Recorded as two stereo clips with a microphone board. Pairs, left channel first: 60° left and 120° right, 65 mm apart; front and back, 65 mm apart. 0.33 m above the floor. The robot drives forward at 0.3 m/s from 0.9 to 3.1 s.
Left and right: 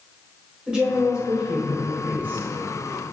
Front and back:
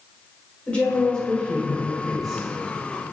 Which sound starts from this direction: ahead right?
A woman speaking, at 0.7 s.